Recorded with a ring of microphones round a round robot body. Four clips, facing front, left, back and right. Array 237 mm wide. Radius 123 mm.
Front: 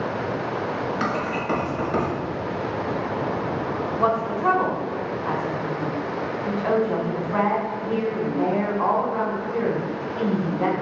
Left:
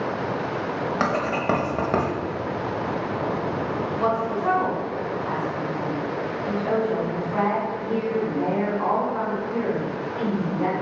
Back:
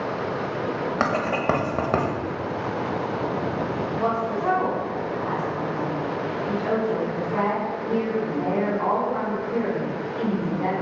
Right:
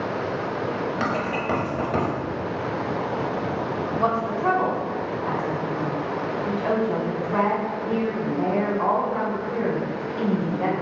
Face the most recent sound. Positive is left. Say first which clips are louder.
# right 1 dB, front 3 dB
turn(degrees=-40)